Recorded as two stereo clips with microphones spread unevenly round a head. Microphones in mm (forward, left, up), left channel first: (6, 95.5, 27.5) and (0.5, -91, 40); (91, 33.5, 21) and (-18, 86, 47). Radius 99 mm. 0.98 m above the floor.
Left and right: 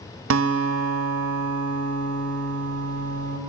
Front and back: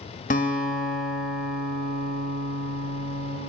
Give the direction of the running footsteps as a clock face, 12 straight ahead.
No running footsteps in this recording.